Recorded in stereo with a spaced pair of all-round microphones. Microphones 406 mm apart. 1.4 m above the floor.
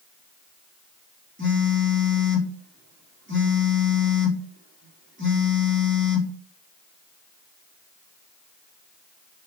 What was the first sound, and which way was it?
A phone buzzing, 25° right (ahead or behind).